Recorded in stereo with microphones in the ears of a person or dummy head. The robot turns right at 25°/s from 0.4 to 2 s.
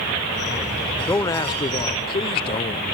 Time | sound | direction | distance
1.1 | a man speaking | 15° left (ahead or behind) | 1.0 m